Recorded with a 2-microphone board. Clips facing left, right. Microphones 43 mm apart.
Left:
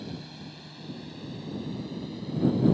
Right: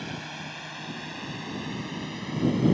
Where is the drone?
65° right (ahead or behind); by 2.7 s 70° right (ahead or behind).